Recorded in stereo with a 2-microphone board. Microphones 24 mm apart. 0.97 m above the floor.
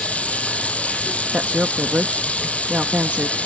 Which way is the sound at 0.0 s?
70° left (ahead or behind).